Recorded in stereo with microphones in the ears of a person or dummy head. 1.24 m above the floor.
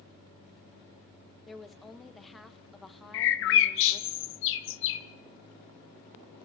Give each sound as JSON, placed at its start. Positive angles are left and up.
{"t": 1.5, "sound": "a woman speaking", "side_deg": 0, "distance_m": 0.8}
{"t": 3.1, "sound": "a bird", "side_deg": 60, "distance_m": 0.9}